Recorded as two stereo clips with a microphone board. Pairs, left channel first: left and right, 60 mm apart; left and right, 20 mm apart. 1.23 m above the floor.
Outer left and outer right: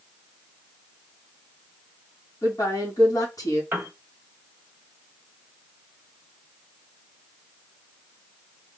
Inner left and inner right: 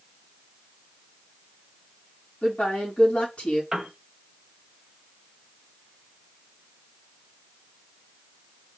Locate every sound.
2.4 s a woman speaking: 70° left (ahead or behind), 2.5 m
3.7 s a piano: 40° right (ahead or behind), 1.2 m